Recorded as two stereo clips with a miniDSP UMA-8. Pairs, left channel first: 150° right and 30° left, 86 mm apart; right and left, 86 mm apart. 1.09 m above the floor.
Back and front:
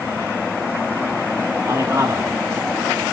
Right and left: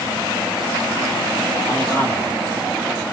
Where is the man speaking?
25° right, 8 m.